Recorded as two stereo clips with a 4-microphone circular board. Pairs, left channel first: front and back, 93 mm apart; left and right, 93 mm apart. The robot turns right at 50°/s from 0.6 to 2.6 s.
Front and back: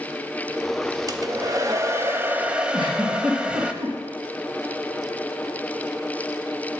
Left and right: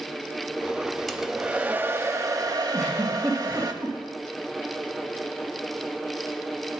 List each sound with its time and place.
1.1 s a hair dryer: 175° left, 0.6 m; by 3.7 s 105° right, 0.6 m
2.7 s a giggle: 150° right, 3 m